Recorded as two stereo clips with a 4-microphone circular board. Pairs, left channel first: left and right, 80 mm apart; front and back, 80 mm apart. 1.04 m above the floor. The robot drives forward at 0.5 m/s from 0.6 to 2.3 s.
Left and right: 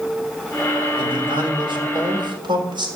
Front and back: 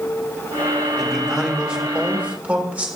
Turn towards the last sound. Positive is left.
turn(degrees=-105)